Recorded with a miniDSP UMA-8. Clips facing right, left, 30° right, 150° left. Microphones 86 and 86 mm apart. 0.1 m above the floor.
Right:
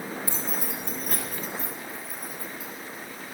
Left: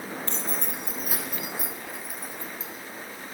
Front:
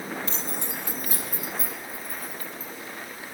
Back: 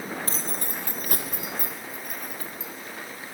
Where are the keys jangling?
165° right, 2.5 m; by 2.7 s 155° left, 4.5 m.